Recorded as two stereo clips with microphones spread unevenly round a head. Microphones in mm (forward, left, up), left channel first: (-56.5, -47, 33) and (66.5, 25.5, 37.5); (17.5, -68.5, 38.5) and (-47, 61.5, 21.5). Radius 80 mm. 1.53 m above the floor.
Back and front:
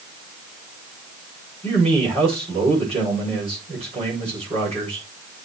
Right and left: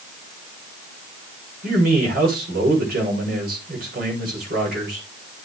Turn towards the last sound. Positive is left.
turn(degrees=85)